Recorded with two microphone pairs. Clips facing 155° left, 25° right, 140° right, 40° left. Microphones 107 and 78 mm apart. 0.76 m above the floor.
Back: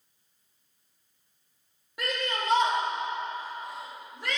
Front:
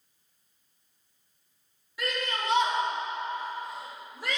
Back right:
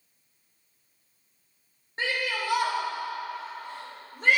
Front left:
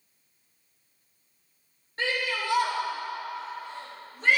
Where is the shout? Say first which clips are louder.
Back 1 dB, even; 160° left, 1.4 m; by 4.4 s 110° right, 2.5 m.